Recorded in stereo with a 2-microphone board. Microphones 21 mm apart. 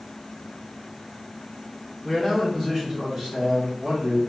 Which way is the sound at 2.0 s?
10° right (ahead or behind).